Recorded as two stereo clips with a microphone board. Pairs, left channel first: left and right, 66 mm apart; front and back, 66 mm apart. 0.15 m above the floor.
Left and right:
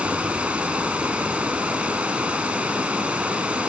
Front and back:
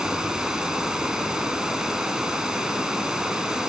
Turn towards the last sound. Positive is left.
turn(degrees=-120)